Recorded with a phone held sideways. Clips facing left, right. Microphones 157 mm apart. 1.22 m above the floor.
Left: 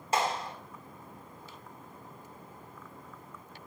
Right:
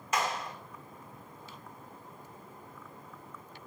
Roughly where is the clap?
Left.